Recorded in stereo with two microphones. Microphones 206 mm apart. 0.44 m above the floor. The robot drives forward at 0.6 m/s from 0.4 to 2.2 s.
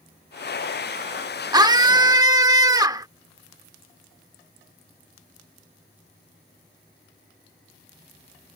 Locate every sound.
1.5 s a scream: 20° right (ahead or behind)